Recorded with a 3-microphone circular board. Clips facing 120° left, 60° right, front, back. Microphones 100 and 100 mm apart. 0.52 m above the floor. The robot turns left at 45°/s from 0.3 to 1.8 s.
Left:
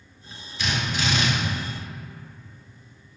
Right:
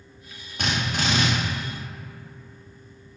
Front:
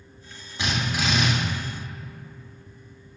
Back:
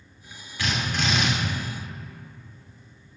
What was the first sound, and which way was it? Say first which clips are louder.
A drill: right 1 dB, front 1 dB; 60° right.